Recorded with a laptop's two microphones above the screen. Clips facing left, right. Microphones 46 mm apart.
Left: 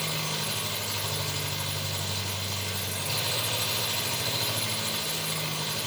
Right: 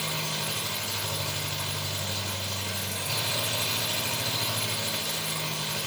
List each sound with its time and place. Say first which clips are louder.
0.0 s an engine running: even; 30° right (ahead or behind), 1.6 m